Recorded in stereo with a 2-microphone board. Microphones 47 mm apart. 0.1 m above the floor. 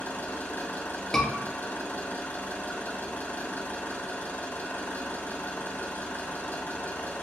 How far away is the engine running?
About 1.5 m.